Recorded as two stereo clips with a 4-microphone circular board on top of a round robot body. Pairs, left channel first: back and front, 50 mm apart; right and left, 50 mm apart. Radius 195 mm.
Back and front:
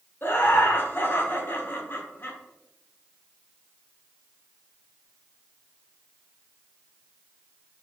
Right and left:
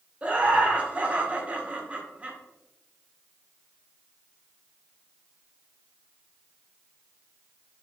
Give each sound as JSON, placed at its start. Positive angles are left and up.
{"t": 0.2, "sound": "laughter", "azimuth_deg": 150, "distance_m": 1.0}